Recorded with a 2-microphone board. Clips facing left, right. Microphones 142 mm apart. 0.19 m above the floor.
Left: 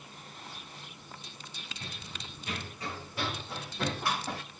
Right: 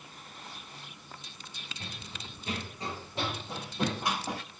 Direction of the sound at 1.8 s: 35° right (ahead or behind).